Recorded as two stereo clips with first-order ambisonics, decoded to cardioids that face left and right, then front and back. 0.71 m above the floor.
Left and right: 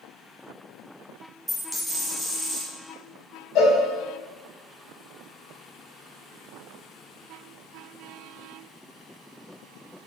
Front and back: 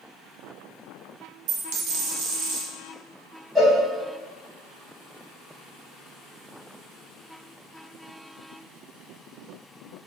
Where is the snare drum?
I don't hear a snare drum.